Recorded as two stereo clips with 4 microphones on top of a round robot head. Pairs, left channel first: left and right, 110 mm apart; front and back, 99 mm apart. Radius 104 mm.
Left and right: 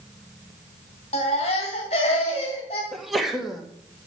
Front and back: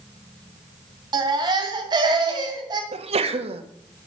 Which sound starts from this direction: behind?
A sneeze, at 2.9 s.